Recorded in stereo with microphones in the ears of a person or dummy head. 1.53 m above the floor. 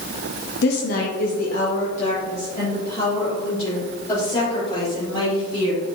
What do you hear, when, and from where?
0.6 s a woman speaking: 65° left (ahead or behind), 0.9 m; by 5.8 s 30° left (ahead or behind), 4.5 m